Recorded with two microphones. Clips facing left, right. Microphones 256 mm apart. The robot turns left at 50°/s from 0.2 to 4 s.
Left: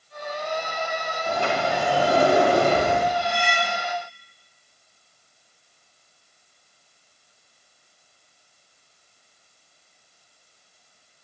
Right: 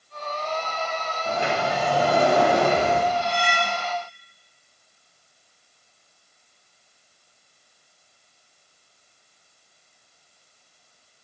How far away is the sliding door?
About 5 m.